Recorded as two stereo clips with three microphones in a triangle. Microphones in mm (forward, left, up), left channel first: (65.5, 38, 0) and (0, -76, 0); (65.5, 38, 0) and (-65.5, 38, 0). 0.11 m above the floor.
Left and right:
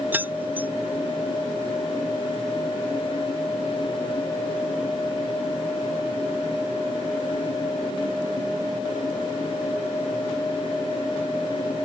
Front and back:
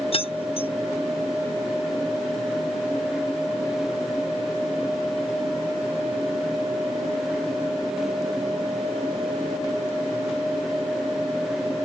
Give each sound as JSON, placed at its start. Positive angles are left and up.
{"t": 0.1, "sound": "keys jangling", "azimuth_deg": -45}